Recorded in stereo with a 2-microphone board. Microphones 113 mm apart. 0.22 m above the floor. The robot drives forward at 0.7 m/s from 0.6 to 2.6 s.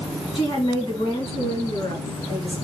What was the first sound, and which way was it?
A woman speaking, 55° left (ahead or behind).